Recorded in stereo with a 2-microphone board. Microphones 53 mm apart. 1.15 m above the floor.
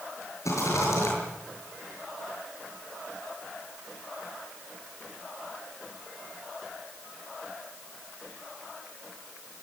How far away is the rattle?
About 7.5 m.